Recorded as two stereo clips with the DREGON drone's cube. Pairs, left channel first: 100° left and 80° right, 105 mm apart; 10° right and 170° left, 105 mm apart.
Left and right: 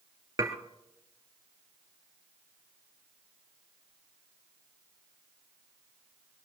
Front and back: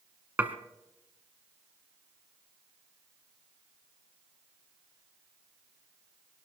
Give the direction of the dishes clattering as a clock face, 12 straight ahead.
4 o'clock.